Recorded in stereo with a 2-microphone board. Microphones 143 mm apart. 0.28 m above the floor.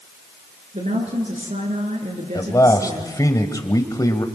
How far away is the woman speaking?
About 5 m.